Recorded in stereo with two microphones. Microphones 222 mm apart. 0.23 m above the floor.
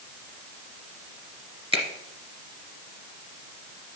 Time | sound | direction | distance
1.7 | a finger snap | 25° right (ahead or behind) | 2 m